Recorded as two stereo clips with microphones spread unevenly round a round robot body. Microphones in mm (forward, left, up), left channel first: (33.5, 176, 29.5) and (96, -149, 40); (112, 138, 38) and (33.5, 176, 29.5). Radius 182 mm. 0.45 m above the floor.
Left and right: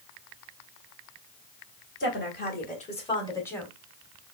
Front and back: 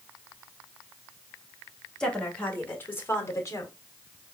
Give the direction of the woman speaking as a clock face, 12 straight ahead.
10 o'clock.